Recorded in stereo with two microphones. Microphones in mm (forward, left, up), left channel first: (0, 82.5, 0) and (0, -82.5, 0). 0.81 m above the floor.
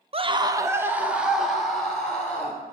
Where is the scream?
40° right (ahead or behind), 1.0 m; by 2.6 s 10° left (ahead or behind), 3 m.